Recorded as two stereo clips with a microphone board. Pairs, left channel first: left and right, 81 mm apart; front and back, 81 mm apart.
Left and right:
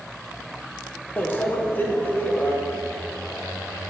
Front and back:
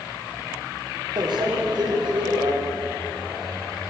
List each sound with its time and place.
1.2 s a microwave: 155° left, 1.0 m